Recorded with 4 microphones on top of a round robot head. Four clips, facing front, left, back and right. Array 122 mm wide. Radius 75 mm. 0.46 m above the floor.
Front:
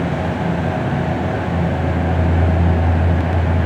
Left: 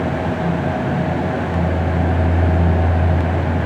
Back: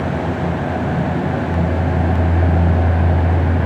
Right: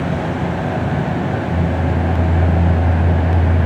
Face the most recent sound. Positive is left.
No sound to turn to.